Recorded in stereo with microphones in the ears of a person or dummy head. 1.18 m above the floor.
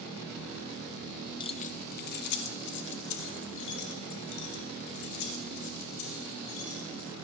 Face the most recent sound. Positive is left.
turn(degrees=80)